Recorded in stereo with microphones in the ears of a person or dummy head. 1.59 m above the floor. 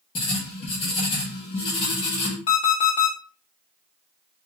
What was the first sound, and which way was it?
Writing, 30° left (ahead or behind).